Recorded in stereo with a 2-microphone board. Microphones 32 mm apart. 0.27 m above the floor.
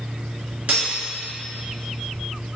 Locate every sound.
0.7 s cutlery clinking: 50° right (ahead or behind), 2.0 m